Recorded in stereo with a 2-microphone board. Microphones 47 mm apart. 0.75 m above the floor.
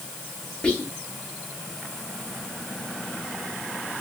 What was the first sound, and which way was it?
Whispering, 15° left (ahead or behind).